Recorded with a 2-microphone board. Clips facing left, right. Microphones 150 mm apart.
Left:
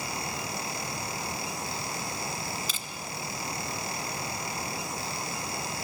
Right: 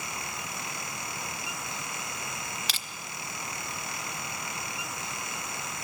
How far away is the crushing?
About 0.9 m.